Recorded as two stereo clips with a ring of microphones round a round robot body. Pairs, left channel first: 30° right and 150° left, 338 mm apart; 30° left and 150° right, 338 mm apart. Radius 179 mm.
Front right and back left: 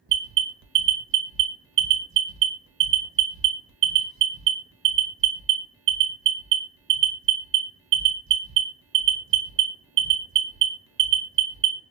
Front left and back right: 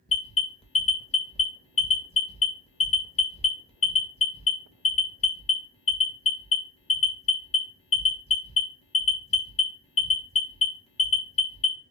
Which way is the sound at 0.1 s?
100° left.